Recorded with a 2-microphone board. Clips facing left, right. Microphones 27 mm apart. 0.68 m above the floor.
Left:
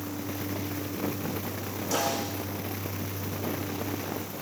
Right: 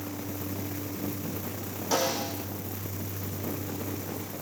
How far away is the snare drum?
About 8.5 m.